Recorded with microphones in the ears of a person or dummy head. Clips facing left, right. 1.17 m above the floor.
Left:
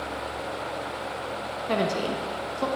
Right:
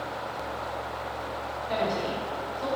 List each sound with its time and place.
1.7 s a woman speaking: 65° left (ahead or behind), 1.2 m